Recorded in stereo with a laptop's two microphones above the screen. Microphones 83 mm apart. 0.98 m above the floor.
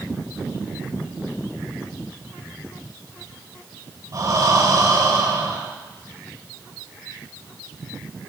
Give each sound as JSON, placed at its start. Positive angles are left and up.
{"t": 4.1, "sound": "breathing", "side_deg": -45, "distance_m": 3.0}